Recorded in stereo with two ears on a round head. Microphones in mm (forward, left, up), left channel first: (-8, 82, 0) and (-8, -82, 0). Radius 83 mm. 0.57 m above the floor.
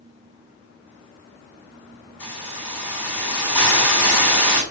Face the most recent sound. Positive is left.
turn(degrees=10)  # may be behind; listen again after turning